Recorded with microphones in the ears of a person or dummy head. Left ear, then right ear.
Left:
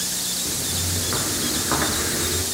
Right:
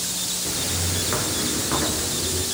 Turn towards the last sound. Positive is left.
turn(degrees=45)  # may be behind; listen again after turning